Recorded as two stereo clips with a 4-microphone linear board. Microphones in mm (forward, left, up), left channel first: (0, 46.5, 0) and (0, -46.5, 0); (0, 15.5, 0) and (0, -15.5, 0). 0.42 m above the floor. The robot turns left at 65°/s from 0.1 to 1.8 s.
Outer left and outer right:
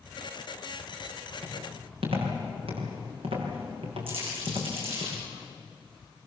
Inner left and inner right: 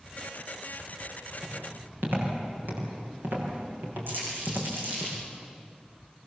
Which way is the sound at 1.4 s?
65° right (ahead or behind).